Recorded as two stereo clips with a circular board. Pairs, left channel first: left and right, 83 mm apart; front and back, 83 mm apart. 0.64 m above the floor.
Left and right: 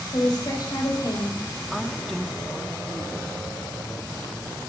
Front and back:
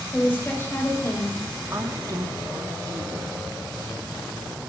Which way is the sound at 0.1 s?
65° left.